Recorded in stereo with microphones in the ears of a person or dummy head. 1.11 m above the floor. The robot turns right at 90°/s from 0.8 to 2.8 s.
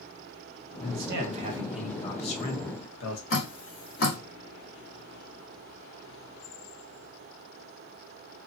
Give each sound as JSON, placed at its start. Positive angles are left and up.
{"t": 0.8, "sound": "a man speaking", "azimuth_deg": -85, "distance_m": 1.5}
{"t": 3.3, "sound": "dripping", "side_deg": 50, "distance_m": 1.6}